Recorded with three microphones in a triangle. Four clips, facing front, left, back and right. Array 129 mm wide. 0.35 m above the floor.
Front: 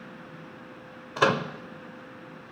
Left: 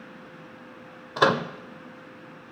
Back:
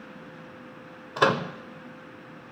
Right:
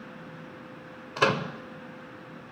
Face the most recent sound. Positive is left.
turn(degrees=105)